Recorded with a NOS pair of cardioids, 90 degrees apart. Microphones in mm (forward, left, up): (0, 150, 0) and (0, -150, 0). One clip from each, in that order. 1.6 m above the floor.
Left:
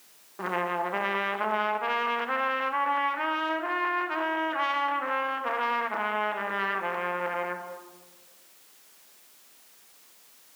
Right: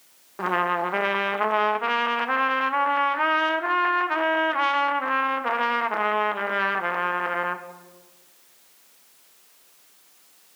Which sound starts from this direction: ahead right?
A trumpet, at 0.4 s.